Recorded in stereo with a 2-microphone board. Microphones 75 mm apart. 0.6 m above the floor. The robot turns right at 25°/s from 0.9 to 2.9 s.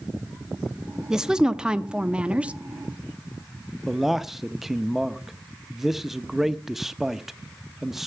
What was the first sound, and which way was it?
A woman speaking, 5° right (ahead or behind).